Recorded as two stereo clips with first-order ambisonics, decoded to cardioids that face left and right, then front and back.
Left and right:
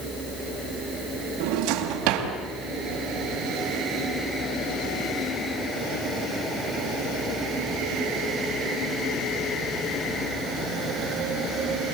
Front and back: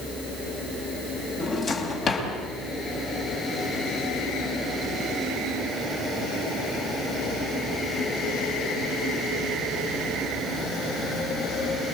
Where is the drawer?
65° right, 3.5 m.